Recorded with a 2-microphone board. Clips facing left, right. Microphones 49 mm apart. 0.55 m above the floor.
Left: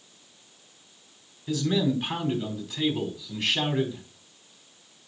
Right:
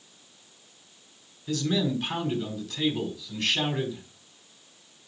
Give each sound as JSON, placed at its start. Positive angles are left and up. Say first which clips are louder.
{"t": 1.5, "sound": "a man speaking", "louder": "left 2 dB", "side_deg": 10, "distance_m": 4.0}